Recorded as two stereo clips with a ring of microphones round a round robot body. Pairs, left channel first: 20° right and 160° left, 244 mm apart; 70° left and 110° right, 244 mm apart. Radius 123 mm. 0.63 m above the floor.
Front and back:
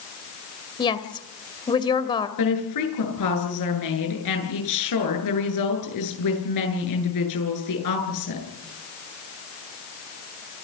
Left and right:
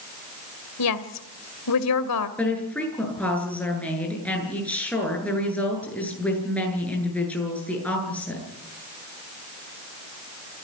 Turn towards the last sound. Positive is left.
turn(degrees=-15)